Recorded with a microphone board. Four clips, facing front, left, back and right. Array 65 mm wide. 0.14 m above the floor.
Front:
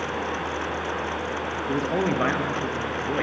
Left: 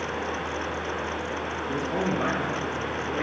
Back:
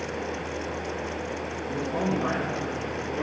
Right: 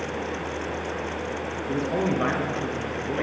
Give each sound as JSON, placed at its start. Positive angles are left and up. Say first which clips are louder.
{"t": 1.7, "sound": "a man speaking", "louder": "right 3 dB, front 3 dB", "azimuth_deg": -5, "distance_m": 2.5}